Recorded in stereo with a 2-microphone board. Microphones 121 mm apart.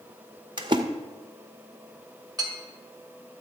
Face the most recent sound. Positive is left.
turn(degrees=-35)  # may be behind; listen again after turning